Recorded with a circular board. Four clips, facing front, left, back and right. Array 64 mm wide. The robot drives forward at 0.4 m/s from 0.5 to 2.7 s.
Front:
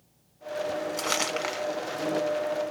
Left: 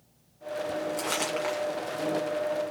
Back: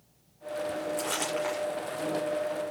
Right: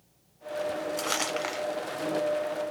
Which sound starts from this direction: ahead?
Crumpling, at 1.0 s.